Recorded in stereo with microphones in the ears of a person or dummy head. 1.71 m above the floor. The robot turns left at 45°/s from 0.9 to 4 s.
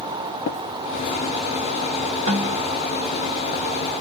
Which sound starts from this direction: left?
Tapping, at 0.5 s.